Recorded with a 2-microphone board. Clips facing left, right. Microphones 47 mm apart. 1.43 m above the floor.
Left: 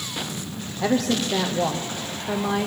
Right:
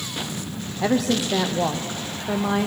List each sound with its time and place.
0.8 s a woman speaking: 5° right (ahead or behind), 0.6 m